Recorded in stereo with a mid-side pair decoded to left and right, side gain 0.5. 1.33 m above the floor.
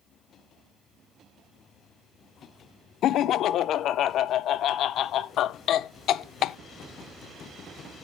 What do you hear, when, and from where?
3.0 s laughter: 65° left, 0.5 m